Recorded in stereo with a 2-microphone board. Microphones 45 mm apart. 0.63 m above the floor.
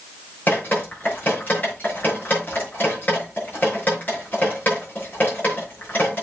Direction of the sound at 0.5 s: 40° left (ahead or behind).